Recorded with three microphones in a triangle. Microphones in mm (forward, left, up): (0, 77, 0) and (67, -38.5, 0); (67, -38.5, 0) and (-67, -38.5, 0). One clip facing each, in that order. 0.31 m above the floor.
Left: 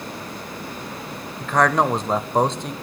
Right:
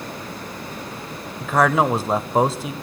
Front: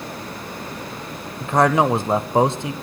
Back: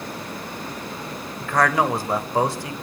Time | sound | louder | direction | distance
1.4 | a man speaking | right 1 dB, front 4 dB | 20° left | 1.0 m